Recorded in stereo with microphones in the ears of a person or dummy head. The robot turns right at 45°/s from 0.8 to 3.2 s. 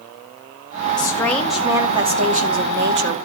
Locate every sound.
1.0 s a woman speaking: 155° left, 2 m; by 3.2 s 110° right, 2 m